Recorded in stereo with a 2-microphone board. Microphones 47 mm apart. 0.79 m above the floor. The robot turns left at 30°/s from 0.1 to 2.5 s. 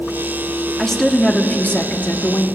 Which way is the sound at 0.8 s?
170° left.